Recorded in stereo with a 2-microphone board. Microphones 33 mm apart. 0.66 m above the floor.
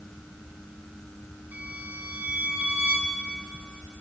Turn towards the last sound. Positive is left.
turn(degrees=-60)  # may be behind; listen again after turning